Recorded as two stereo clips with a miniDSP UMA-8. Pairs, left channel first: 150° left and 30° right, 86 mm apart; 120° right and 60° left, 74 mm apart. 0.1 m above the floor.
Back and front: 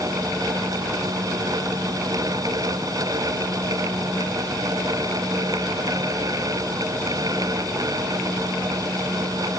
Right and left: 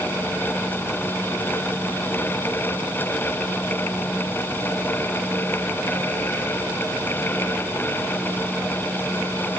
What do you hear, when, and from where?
Only background noise.